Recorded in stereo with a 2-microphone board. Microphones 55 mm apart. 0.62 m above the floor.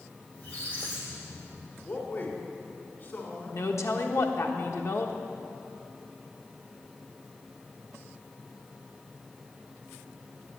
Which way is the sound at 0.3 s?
25° left (ahead or behind).